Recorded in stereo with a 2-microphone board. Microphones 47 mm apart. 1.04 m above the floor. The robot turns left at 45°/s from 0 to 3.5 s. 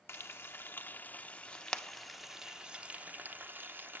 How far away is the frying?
About 0.9 m.